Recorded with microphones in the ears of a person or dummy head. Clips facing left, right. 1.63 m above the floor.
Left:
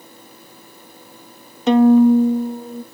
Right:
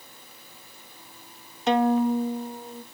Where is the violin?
65° left (ahead or behind), 0.5 m.